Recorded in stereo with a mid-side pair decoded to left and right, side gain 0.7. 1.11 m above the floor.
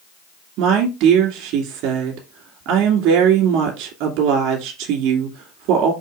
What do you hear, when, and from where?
0.6 s a woman speaking: 65° right, 2.5 m